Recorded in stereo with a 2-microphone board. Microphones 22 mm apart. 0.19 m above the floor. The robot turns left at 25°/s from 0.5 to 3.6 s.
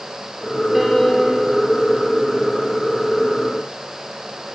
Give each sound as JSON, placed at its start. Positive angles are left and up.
{"t": 0.7, "sound": "a piano", "side_deg": -15, "distance_m": 2.0}